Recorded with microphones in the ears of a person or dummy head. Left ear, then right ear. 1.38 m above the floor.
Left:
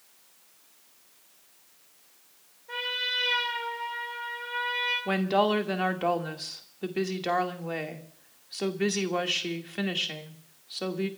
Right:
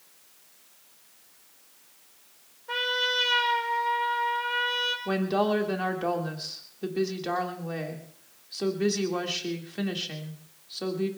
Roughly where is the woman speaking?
Left.